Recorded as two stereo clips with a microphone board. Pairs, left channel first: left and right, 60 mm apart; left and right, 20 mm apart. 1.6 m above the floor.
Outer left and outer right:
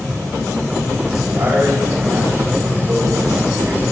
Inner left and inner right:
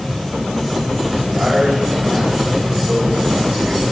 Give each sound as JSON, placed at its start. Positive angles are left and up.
{"t": 1.2, "sound": "a man speaking", "side_deg": -45, "distance_m": 9.5}